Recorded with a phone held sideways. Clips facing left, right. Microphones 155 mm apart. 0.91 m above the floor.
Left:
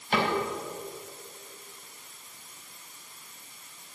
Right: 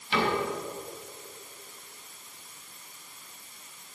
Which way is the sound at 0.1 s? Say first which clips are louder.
Even; 50° left (ahead or behind).